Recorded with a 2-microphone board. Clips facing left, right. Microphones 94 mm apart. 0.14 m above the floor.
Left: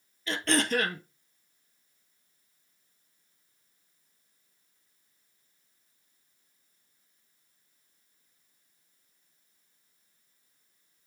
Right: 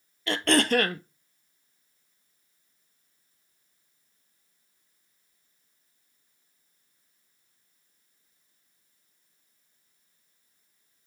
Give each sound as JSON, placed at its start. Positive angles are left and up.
{"t": 0.3, "sound": "throat clearing", "side_deg": -65, "distance_m": 0.6}